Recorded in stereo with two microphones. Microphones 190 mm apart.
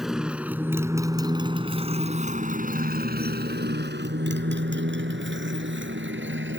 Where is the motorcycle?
Centre (ahead or behind); by 6.6 s 90° right.